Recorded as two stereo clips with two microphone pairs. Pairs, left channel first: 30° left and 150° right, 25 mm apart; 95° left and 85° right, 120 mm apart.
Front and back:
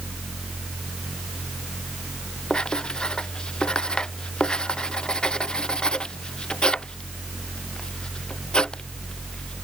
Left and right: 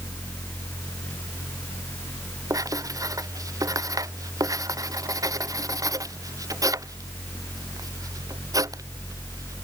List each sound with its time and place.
2.5 s writing: 25° right